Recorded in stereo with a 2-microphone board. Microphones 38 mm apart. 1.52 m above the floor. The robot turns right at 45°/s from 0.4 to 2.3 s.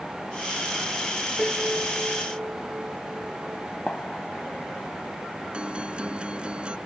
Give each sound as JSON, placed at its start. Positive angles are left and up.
{"t": 1.4, "sound": "a piano", "azimuth_deg": -170}
{"t": 3.9, "sound": "a gunshot", "side_deg": 30}
{"t": 5.5, "sound": "a guitar", "side_deg": -25}